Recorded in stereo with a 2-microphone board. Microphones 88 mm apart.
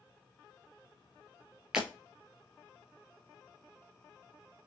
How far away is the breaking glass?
About 3.5 m.